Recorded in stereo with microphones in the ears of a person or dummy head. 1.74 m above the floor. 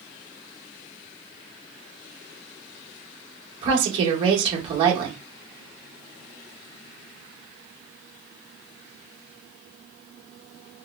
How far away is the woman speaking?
About 1.2 m.